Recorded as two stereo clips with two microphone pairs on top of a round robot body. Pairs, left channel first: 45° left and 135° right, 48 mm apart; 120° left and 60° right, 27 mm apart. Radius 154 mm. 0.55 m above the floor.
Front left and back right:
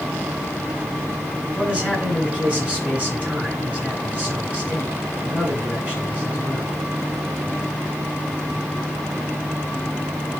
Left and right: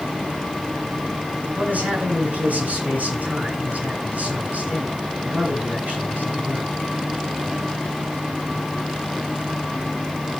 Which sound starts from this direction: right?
A man speaking, at 1.6 s.